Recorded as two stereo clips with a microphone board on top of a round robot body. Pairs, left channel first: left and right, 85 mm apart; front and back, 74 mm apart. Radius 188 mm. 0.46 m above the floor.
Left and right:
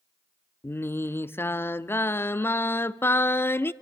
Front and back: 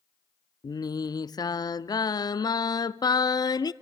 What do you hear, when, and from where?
0.6 s singing: 25° left, 0.6 m